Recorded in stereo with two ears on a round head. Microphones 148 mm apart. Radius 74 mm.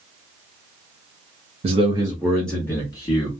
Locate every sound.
1.6 s a man speaking: 40° right (ahead or behind), 0.7 m; by 3.3 s 30° left (ahead or behind), 1.3 m